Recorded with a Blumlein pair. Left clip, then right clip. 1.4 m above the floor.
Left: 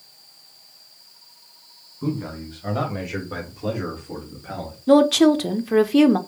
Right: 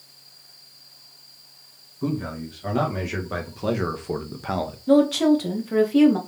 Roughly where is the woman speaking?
Ahead.